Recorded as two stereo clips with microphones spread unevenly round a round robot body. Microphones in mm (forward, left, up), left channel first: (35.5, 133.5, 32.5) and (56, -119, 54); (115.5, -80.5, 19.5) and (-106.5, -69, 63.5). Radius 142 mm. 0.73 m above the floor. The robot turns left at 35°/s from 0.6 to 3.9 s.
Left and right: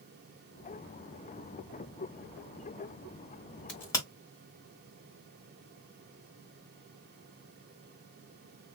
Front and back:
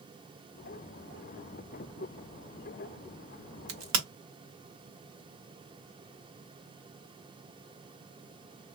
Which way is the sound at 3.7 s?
Straight behind.